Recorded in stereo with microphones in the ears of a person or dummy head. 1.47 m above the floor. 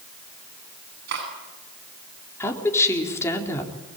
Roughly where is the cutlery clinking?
Right.